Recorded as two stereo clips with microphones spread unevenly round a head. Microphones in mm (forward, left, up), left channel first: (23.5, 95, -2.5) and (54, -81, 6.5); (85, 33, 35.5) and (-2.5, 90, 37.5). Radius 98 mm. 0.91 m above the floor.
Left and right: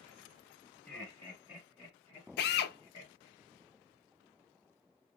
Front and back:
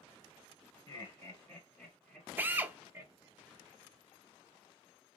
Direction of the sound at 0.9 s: 10° left.